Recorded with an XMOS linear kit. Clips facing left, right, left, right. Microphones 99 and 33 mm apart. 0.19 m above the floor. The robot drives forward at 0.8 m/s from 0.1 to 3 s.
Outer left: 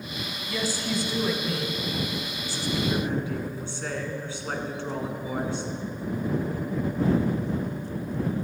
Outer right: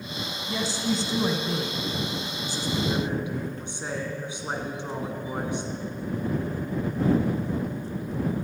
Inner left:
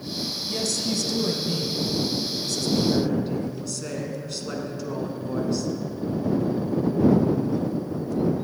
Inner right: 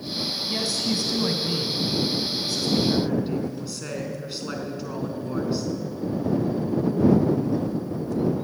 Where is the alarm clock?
I don't hear an alarm clock.